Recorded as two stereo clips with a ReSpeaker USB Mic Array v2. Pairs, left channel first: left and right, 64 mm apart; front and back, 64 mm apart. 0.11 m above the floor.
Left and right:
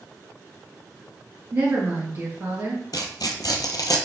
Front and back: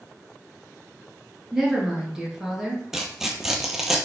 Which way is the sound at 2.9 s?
95° left.